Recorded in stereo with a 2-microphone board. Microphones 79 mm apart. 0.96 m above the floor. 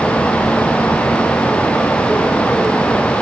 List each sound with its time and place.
Only background noise.